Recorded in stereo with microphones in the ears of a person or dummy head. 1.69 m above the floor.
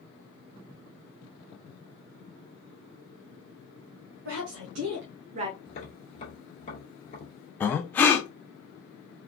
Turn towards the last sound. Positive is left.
turn(degrees=10)  # may be behind; listen again after turning